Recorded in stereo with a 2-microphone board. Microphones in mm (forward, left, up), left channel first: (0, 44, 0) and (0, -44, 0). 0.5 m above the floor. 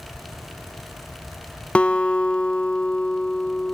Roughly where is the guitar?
Centre.